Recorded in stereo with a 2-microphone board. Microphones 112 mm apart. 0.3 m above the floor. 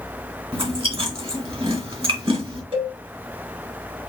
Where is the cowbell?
55° right (ahead or behind), 2.5 m.